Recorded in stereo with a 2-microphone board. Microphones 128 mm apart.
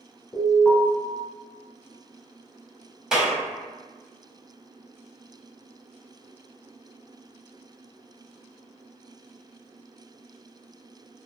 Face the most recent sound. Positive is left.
turn(degrees=-5)  # may be behind; listen again after turning